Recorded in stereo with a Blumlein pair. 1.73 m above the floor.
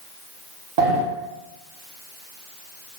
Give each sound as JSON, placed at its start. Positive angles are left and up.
{"t": 0.8, "sound": "a sliding door", "azimuth_deg": -45, "distance_m": 0.9}